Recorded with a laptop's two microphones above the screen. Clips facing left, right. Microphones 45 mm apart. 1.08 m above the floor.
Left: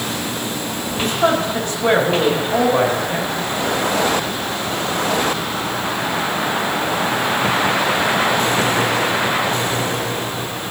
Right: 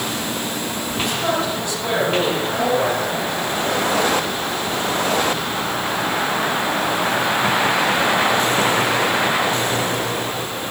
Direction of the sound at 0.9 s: 45° left (ahead or behind).